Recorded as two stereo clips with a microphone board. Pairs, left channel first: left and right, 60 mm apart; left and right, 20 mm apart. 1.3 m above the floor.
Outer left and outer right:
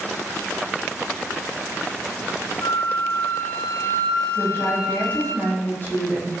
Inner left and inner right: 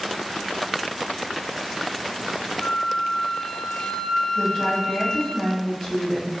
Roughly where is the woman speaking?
Left.